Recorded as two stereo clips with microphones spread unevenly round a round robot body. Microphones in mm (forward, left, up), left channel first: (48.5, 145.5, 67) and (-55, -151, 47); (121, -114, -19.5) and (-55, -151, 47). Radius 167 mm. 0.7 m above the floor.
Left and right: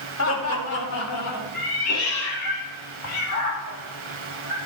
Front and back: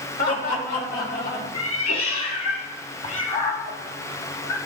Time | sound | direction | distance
0.2 | laughter | 25° left | 3 m
1.5 | a cat meowing | 30° left | 2 m